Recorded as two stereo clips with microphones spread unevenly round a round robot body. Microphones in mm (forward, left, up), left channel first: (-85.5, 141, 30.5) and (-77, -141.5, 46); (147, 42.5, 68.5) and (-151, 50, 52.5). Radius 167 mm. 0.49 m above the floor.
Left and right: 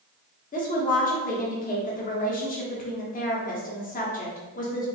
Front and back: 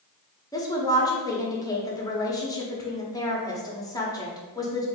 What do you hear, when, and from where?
0.5 s a woman speaking: 70° left, 1.0 m